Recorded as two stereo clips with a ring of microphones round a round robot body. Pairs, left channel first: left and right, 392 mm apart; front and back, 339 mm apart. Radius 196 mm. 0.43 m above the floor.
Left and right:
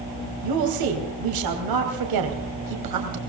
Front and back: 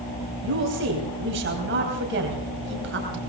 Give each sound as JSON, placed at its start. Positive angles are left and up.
{"t": 0.4, "sound": "a woman speaking", "azimuth_deg": -120, "distance_m": 3.0}